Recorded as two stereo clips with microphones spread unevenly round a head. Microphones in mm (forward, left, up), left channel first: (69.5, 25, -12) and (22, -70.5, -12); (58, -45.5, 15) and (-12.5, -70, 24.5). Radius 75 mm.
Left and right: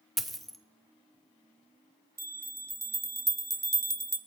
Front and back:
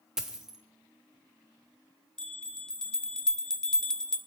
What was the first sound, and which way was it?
A dropped coin, 150° left.